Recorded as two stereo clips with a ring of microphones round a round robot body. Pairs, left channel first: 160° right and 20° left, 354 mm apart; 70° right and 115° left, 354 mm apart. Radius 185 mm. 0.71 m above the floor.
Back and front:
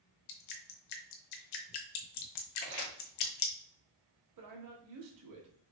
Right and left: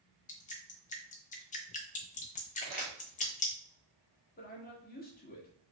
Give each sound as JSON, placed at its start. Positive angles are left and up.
{"t": 0.3, "sound": "dripping", "azimuth_deg": -135, "distance_m": 0.8}
{"t": 2.6, "sound": "crumpling", "azimuth_deg": 65, "distance_m": 2.0}
{"t": 4.4, "sound": "a man speaking", "azimuth_deg": -5, "distance_m": 1.6}